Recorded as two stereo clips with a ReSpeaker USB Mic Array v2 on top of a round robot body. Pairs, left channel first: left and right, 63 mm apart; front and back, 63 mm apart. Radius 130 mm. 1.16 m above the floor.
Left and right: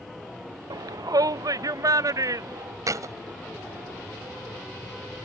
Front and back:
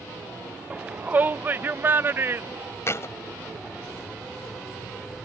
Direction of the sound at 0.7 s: 105° right.